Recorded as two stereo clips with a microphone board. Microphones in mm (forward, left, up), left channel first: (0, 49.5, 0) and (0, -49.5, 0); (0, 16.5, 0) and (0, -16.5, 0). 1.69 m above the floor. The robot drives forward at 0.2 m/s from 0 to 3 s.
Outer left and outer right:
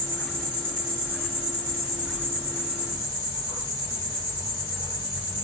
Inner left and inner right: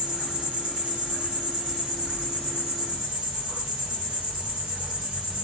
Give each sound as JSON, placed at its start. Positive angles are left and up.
{"t": 0.0, "sound": "an insect", "side_deg": -25, "distance_m": 1.4}